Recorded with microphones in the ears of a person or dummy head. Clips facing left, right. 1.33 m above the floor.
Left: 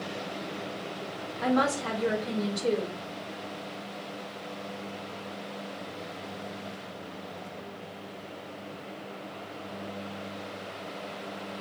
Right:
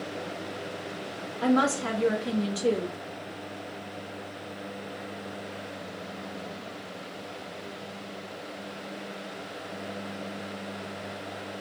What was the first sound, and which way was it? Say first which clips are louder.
A woman speaking: right 2 dB; 40° right (ahead or behind).